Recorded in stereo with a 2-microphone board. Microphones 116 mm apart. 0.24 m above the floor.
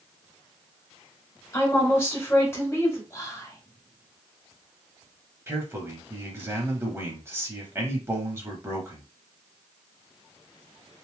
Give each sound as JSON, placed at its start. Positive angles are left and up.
{"t": 1.5, "sound": "a woman speaking", "side_deg": 25, "distance_m": 1.5}
{"t": 3.1, "sound": "whispering", "side_deg": 30, "distance_m": 1.0}
{"t": 5.5, "sound": "a man speaking", "side_deg": -20, "distance_m": 1.0}